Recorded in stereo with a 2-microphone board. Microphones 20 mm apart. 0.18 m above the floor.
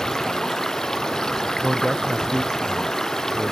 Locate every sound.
0.0 s running water: 30° left (ahead or behind)
1.6 s a man speaking: 35° right (ahead or behind)